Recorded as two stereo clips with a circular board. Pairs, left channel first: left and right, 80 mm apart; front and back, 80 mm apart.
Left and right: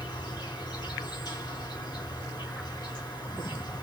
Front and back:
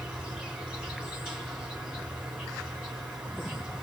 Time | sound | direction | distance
0.0 | an insect | 105° left | 1.7 m